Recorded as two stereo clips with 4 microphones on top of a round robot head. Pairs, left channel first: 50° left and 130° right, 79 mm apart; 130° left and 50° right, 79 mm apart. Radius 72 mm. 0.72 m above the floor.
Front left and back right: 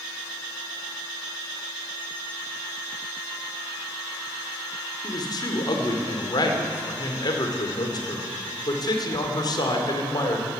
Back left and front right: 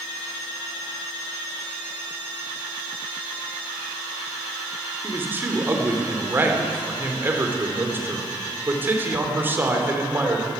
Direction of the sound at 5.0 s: 15° left.